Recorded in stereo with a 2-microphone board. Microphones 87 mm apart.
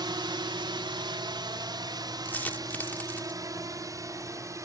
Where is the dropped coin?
20° left (ahead or behind).